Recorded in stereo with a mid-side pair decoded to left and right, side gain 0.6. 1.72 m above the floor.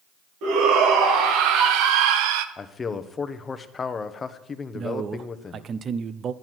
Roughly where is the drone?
I don't hear a drone.